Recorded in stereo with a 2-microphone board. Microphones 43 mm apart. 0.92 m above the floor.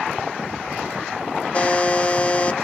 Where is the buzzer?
30° left (ahead or behind), 1.3 m.